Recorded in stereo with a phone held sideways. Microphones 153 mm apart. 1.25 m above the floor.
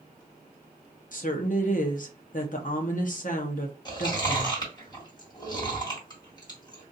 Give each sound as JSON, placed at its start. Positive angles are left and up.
{"t": 1.1, "sound": "a woman speaking", "side_deg": 55, "distance_m": 0.7}
{"t": 3.9, "sound": "chewing", "side_deg": 25, "distance_m": 1.8}